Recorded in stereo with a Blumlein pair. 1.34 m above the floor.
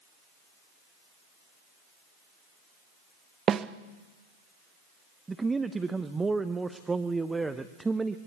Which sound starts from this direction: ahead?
A man speaking, at 5.3 s.